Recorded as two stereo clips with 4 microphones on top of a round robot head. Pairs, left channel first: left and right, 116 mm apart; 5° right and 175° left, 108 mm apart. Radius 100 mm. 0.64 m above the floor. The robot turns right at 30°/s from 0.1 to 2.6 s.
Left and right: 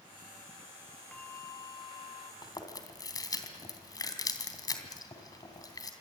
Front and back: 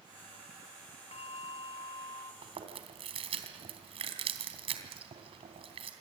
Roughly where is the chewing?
Behind left.